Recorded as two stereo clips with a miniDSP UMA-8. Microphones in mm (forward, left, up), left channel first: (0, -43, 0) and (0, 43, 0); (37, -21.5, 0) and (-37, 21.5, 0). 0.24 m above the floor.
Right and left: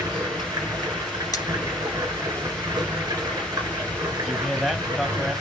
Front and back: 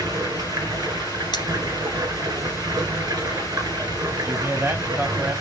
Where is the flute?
No flute in this recording.